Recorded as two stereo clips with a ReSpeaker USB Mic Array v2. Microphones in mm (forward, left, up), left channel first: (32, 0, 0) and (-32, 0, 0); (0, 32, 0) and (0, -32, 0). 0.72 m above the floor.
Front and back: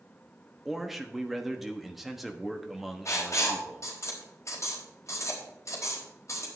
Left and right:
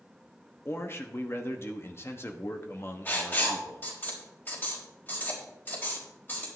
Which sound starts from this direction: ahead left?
Writing, at 3.0 s.